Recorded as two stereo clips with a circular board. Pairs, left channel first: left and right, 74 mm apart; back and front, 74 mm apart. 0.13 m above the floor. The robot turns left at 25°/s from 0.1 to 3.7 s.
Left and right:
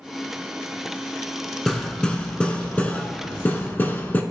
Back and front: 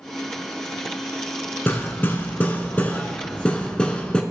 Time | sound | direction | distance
1.7 | hammering | 170° left | 0.9 m